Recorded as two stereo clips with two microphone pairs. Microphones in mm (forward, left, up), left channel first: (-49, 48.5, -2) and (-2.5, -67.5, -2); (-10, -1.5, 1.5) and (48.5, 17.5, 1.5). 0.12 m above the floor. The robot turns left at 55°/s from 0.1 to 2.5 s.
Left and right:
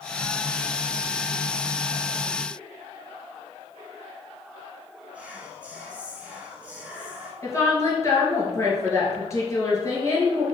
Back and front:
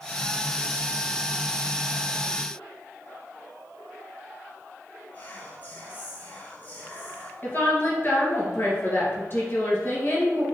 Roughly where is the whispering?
Behind right.